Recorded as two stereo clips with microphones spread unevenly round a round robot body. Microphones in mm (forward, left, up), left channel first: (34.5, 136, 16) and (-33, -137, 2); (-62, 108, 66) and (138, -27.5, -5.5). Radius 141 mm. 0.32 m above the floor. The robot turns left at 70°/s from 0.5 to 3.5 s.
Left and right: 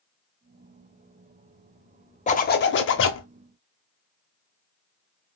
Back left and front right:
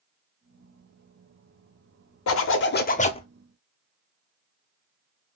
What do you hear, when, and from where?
2.3 s a zipper: 130° left, 0.7 m; by 3.3 s 60° left, 0.7 m